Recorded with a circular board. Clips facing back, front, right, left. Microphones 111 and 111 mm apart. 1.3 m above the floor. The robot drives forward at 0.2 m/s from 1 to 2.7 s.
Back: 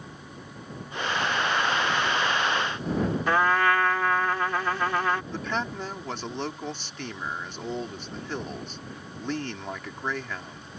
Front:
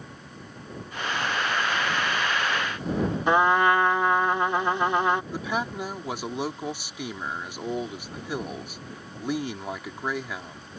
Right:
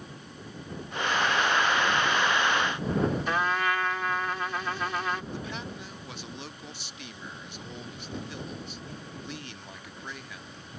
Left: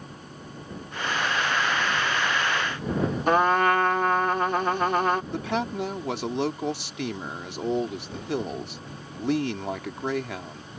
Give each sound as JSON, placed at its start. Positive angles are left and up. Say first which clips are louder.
{"t": 3.3, "sound": "a trumpet", "louder": "front 3 dB, left 7 dB", "azimuth_deg": 65}
{"t": 5.3, "sound": "a man speaking", "louder": "front 1 dB, left 10 dB", "azimuth_deg": 80}